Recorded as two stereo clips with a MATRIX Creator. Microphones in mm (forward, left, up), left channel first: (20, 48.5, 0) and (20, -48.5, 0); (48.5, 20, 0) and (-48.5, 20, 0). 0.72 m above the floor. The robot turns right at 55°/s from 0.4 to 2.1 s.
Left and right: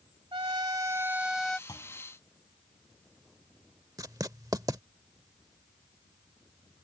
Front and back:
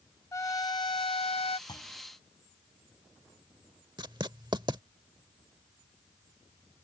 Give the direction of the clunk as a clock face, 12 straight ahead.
11 o'clock.